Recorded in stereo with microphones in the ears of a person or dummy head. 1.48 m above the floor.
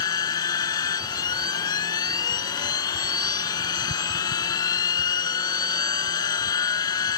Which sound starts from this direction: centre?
A machine running, at 0.0 s.